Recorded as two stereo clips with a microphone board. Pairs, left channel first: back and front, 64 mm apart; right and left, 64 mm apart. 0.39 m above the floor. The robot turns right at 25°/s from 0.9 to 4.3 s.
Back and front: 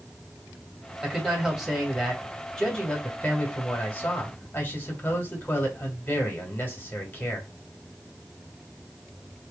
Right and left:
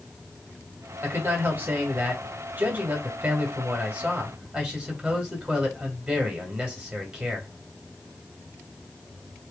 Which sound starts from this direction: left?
A man speaking, at 1.0 s.